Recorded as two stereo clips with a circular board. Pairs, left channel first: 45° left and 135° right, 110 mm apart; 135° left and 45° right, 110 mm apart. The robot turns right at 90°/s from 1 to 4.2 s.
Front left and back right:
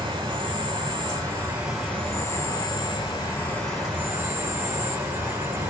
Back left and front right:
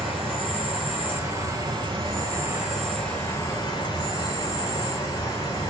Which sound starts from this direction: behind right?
An insect, at 0.0 s.